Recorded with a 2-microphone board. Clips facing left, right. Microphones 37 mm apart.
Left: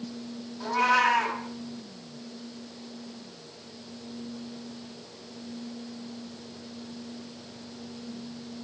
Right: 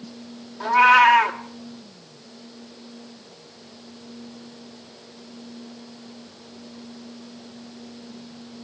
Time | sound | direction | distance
0.6 | a cat meowing | 45° right (ahead or behind) | 1.2 m